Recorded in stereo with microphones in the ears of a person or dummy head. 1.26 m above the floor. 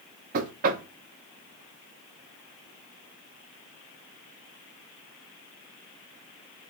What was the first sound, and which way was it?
Knocking, 45° right (ahead or behind).